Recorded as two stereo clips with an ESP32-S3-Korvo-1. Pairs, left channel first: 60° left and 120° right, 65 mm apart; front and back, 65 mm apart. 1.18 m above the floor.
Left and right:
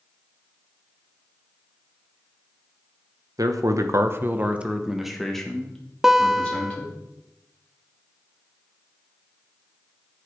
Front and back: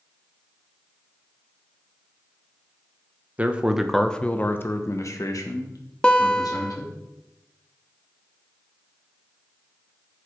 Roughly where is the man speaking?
Behind right.